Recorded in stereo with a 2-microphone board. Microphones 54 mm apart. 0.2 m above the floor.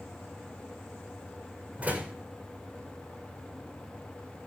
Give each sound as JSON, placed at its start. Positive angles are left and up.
{"t": 1.8, "sound": "a door slam", "side_deg": -30, "distance_m": 7.5}